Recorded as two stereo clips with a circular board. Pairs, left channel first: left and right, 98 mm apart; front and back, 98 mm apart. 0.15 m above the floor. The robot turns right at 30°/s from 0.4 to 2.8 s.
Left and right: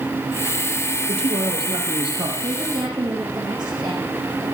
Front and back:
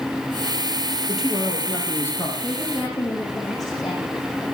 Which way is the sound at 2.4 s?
65° right.